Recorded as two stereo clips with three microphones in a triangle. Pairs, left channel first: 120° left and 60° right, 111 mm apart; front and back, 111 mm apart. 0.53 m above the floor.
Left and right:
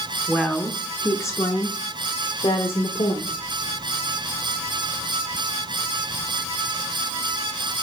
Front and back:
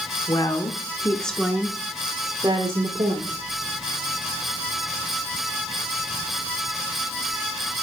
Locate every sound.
0.3 s a woman speaking: 30° left, 1.2 m; by 3.4 s 150° left, 1.8 m